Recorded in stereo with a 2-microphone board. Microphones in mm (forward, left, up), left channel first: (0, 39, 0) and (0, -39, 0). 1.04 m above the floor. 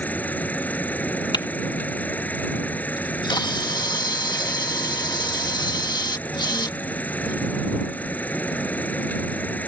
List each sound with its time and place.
0.0 s an insect: 20° left (ahead or behind)
1.3 s typing on a keyboard: 70° left (ahead or behind)
3.0 s a camera shutter: 70° left (ahead or behind)